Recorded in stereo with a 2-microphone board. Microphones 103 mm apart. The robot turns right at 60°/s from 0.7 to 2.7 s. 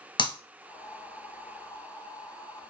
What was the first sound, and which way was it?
Breaking glass, 50° left (ahead or behind).